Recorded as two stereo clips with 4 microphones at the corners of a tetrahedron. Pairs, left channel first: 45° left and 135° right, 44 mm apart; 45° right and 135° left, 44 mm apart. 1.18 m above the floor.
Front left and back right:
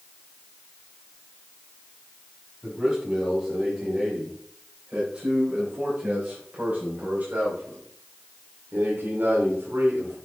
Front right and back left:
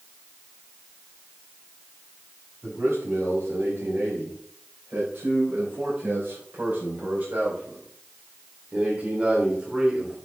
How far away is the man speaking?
About 6 m.